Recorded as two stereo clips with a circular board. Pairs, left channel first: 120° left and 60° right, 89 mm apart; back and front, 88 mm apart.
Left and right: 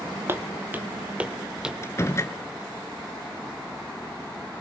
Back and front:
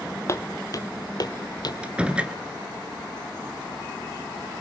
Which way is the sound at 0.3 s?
125° right.